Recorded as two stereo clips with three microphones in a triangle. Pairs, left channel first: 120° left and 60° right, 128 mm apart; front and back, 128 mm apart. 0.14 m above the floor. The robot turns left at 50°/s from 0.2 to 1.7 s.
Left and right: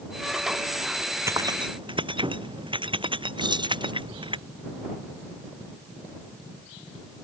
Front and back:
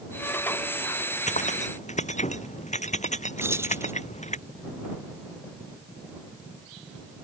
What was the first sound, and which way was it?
Keys jangling, 10° left.